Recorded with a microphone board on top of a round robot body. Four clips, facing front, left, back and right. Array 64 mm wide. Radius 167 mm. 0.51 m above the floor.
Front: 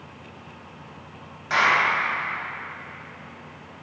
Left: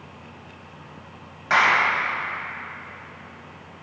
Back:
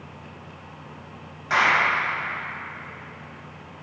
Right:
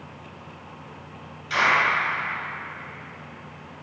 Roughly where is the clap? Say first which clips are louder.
Left 2 dB, even; left.